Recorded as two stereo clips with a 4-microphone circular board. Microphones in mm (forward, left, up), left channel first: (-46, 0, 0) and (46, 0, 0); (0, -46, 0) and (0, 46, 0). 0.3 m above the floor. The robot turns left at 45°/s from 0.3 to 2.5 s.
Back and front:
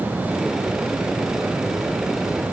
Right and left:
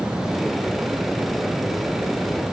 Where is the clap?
No clap in this recording.